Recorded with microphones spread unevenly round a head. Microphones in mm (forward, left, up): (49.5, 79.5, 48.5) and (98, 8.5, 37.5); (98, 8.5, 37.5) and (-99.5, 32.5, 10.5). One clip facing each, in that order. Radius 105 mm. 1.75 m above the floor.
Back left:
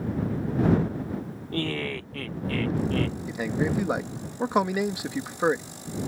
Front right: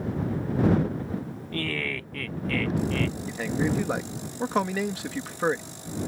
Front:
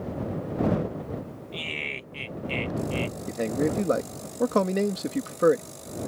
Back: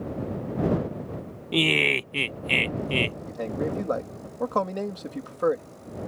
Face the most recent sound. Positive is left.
turn(degrees=50)